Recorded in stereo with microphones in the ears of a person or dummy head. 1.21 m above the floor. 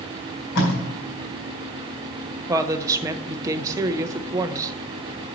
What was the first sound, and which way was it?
Tape being pulled, 70° left (ahead or behind).